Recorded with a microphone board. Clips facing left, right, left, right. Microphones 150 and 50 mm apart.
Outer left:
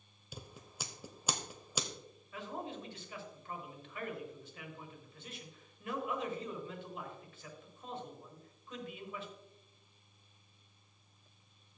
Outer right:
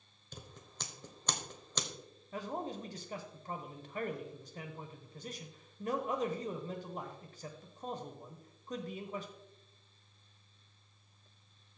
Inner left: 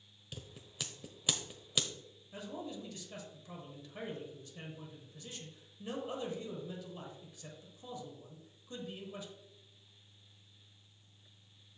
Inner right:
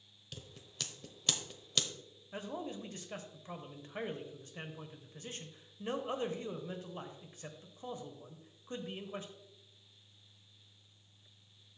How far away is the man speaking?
About 1.0 m.